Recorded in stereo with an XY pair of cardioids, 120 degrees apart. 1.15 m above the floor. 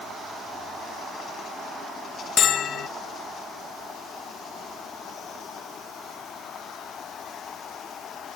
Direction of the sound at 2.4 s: 55° left.